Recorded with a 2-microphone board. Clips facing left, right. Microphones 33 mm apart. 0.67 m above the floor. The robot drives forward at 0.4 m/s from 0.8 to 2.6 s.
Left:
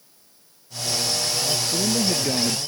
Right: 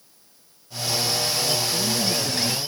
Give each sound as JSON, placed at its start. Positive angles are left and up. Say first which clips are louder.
{"t": 1.6, "sound": "a man speaking", "louder": "left 1 dB", "side_deg": 45}